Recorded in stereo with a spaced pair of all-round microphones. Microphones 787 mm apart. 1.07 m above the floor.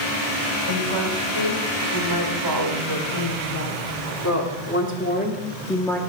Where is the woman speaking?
35° left (ahead or behind), 5 m; by 6.0 s centre (ahead or behind), 2.5 m.